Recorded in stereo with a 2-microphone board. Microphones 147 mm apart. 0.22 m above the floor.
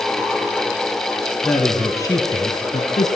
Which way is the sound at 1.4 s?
5° left (ahead or behind).